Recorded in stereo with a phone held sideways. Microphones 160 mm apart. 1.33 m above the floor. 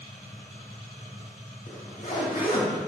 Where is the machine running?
80° left, 1.8 m.